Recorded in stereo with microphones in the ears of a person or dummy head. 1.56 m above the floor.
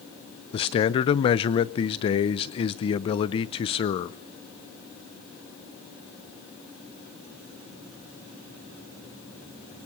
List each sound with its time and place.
0.5 s a man speaking: 25° left (ahead or behind), 0.7 m